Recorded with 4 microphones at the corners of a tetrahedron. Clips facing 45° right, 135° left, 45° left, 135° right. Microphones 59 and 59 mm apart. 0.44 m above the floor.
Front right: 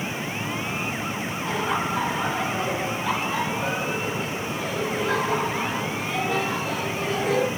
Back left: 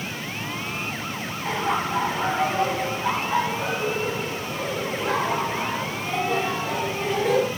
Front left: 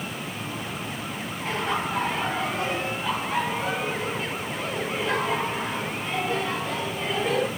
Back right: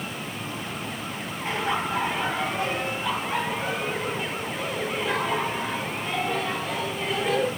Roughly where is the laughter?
Behind left.